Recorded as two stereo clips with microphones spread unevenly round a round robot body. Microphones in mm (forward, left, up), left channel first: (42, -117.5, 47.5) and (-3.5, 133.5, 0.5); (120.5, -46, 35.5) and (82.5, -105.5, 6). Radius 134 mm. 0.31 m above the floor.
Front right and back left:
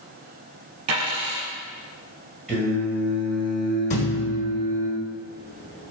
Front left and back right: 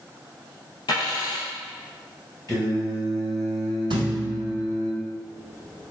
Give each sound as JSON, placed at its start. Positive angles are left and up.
{"t": 0.9, "sound": "a dropped coin", "azimuth_deg": 70, "distance_m": 1.8}
{"t": 2.5, "sound": "singing", "azimuth_deg": 30, "distance_m": 1.8}
{"t": 3.9, "sound": "a thud", "azimuth_deg": -145, "distance_m": 0.5}